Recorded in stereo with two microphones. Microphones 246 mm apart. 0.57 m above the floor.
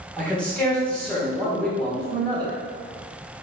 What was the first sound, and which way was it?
A man speaking, 5° left (ahead or behind).